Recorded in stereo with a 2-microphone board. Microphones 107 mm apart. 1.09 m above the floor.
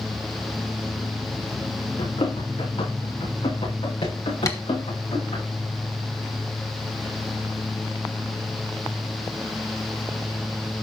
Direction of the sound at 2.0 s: 80° left.